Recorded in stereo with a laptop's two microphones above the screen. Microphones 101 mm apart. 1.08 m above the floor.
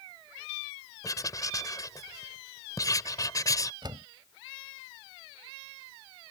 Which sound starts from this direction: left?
Writing, at 1.0 s.